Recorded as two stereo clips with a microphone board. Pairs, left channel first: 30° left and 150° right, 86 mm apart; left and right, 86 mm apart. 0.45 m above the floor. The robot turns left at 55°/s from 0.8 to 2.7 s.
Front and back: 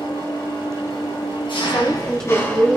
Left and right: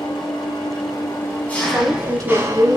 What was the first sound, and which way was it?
An engine running, 55° left.